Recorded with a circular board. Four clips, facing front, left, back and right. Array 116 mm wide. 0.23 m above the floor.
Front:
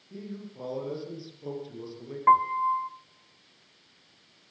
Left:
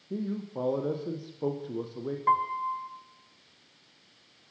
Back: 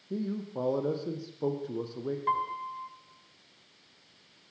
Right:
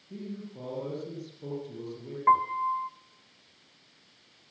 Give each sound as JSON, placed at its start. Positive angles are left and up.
{"t": 0.1, "sound": "a man speaking", "azimuth_deg": 135, "distance_m": 8.0}
{"t": 2.3, "sound": "a piano", "azimuth_deg": -20, "distance_m": 1.9}